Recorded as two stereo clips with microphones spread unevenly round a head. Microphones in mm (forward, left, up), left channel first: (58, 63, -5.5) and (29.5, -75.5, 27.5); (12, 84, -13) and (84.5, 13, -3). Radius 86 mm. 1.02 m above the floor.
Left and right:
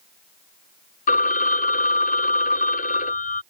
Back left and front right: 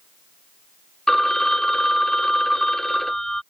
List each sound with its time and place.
1.1 s a phone ringing: 50° left